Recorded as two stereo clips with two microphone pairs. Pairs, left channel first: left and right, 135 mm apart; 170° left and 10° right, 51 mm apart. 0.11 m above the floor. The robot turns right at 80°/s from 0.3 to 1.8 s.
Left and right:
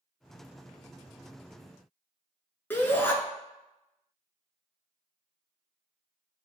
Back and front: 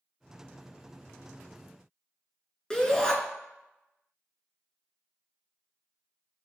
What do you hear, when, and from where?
2.7 s a shout: 130° left, 1.4 m